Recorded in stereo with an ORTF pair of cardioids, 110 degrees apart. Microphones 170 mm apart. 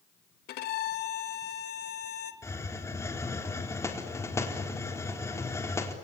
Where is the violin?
70° left, 2 m.